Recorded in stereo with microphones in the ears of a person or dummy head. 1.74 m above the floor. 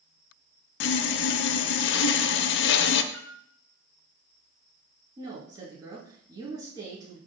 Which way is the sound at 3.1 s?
Centre (ahead or behind).